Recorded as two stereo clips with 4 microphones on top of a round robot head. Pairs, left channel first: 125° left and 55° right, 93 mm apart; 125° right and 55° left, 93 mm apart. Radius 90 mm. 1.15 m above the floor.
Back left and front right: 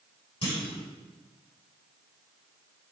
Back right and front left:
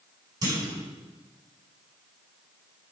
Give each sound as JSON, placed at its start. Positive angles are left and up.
{"t": 0.4, "sound": "a clunk", "azimuth_deg": 105, "distance_m": 4.5}